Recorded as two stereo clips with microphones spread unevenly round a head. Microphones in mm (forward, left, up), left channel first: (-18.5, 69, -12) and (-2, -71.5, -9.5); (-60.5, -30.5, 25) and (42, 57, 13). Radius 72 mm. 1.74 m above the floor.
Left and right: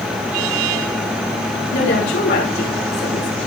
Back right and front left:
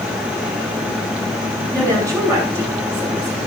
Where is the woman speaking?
110° left, 9.5 m.